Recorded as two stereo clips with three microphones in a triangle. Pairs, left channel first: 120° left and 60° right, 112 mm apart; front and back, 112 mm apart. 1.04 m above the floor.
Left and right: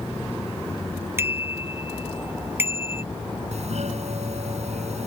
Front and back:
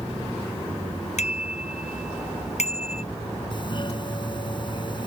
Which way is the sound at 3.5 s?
45° right.